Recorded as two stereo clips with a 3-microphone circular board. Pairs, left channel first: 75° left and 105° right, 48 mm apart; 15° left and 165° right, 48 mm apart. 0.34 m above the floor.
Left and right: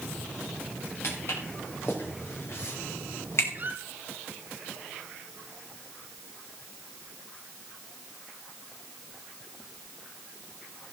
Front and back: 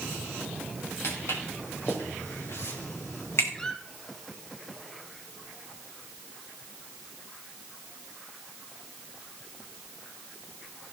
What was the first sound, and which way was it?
Footsteps, 40° left.